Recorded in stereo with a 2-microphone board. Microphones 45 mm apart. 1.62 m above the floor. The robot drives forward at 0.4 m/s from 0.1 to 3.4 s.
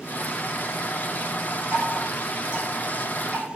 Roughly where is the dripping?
Right.